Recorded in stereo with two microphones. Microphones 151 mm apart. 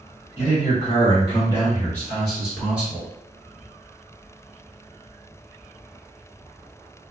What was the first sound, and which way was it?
A man speaking, 45° left (ahead or behind).